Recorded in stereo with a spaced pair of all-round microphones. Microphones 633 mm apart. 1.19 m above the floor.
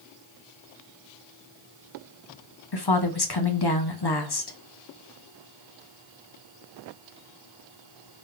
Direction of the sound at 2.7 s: 40° left (ahead or behind).